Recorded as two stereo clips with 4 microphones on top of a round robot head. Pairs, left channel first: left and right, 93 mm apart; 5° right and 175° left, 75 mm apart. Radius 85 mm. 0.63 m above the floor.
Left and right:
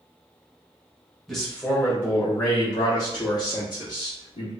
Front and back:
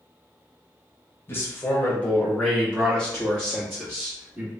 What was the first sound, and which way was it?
A man speaking, 5° left.